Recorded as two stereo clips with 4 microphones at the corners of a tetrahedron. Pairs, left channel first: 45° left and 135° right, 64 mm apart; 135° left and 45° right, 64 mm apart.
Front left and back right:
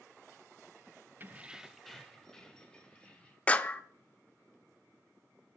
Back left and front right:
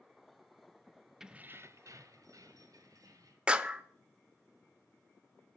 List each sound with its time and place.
1.2 s keys jangling: 125° right, 0.5 m; by 3.4 s 30° right, 2.5 m
3.5 s a clap: 5° left, 0.7 m